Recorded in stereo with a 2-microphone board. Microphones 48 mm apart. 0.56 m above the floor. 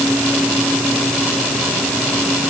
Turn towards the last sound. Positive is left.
No sound to turn to.